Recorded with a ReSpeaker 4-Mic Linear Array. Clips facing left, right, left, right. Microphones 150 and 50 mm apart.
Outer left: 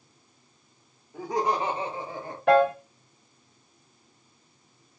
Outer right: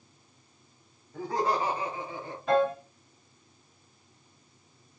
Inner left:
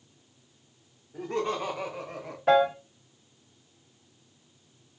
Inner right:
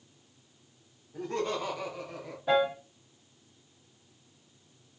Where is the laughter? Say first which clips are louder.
Outer left 2 dB, inner left 2 dB; 10° left (ahead or behind), 1.3 m; by 2.4 s 45° left (ahead or behind), 1.0 m.